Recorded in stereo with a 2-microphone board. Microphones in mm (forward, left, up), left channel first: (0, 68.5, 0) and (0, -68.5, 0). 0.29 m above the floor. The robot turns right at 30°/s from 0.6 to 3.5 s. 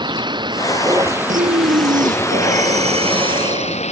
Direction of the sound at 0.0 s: 35° right.